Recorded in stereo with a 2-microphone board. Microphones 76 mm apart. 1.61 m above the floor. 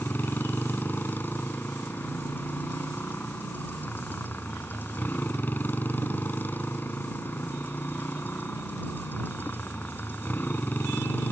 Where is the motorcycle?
25° left (ahead or behind).